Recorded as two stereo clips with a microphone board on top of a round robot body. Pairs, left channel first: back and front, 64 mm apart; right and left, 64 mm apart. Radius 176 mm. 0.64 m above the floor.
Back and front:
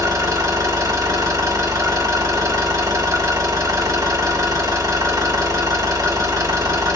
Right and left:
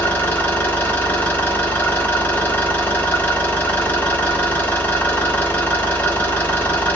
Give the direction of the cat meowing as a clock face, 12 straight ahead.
I don't hear a cat meowing.